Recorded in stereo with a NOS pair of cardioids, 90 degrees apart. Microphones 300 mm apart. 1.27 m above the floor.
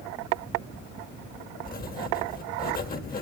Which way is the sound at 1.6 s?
30° left.